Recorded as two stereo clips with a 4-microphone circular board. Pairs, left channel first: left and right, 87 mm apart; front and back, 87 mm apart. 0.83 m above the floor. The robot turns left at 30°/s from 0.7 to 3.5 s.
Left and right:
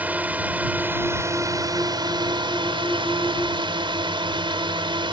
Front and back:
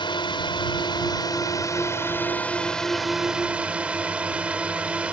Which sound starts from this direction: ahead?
A drone, at 0.0 s.